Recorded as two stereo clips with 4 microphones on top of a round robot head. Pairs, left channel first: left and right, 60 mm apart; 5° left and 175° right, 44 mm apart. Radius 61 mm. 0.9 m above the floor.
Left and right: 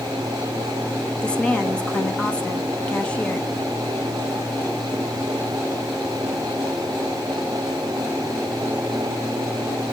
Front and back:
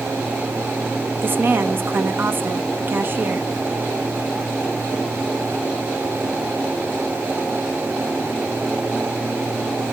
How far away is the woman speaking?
About 1.4 m.